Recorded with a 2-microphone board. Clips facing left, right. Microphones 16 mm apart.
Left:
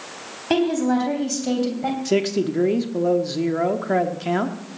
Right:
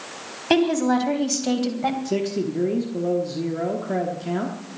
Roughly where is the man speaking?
Left.